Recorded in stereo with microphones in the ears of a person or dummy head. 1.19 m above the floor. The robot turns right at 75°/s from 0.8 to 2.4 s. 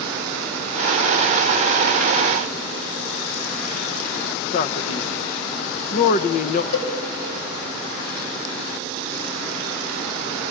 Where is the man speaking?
45° left (ahead or behind), 0.7 m.